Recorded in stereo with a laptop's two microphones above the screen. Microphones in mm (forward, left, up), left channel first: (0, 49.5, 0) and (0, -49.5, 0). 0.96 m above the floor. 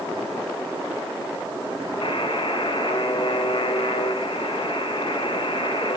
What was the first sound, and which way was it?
A buzzer, 55° left (ahead or behind).